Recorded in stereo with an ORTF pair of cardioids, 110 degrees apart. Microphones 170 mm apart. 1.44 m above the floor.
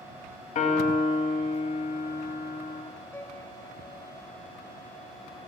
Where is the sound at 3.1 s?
15° left, 3 m.